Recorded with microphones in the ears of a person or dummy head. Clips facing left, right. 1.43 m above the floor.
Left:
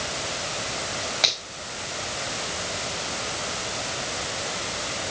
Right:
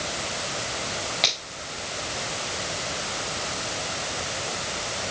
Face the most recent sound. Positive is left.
turn(degrees=5)  # may be behind; listen again after turning